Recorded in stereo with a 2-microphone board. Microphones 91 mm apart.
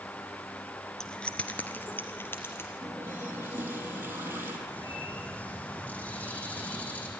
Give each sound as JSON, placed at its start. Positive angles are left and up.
{"t": 1.0, "sound": "keys jangling", "side_deg": 5, "distance_m": 1.2}
{"t": 2.8, "sound": "a running tap", "side_deg": -25, "distance_m": 3.0}
{"t": 4.7, "sound": "a bird", "side_deg": 15, "distance_m": 4.0}